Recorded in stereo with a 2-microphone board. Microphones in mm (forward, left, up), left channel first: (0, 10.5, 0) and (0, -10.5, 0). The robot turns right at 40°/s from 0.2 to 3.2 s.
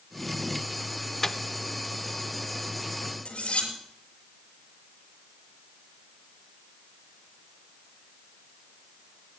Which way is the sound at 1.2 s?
15° left (ahead or behind).